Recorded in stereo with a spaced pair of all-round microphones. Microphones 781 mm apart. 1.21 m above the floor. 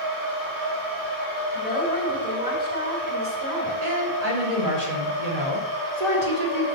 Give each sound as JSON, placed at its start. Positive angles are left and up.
{"t": 0.0, "sound": "a machine running", "side_deg": -80, "distance_m": 6.5}
{"t": 1.5, "sound": "a woman speaking", "side_deg": 50, "distance_m": 5.0}
{"t": 3.8, "sound": "a woman speaking", "side_deg": -50, "distance_m": 4.5}